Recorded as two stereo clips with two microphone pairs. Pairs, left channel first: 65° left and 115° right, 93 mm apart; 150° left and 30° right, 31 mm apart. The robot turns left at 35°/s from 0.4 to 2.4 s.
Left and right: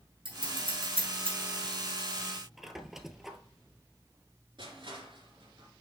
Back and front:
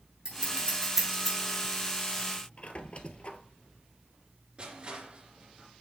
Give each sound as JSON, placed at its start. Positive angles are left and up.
{"t": 0.2, "sound": "scissors", "azimuth_deg": -90, "distance_m": 3.5}
{"t": 2.6, "sound": "a squeak", "azimuth_deg": 160, "distance_m": 0.7}
{"t": 4.6, "sound": "crushing", "azimuth_deg": -85, "distance_m": 3.0}